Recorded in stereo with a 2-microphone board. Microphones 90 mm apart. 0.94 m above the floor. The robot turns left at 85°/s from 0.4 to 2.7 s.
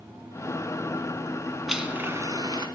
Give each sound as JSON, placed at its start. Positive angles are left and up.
{"t": 1.7, "sound": "a blender", "azimuth_deg": 0, "distance_m": 1.3}